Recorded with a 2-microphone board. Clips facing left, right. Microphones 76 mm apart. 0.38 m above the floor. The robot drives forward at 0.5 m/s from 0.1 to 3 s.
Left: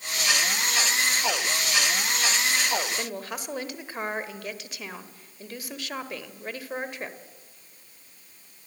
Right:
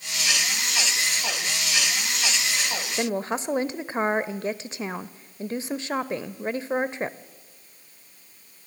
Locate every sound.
3.0 s a woman speaking: 30° right (ahead or behind), 1.1 m